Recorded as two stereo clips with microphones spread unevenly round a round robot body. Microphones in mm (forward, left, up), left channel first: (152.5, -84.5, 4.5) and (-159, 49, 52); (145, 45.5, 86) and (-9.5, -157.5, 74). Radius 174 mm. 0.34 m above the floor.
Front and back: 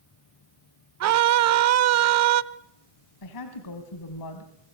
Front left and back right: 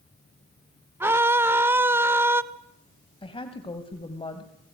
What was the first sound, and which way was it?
A scream, 160° left.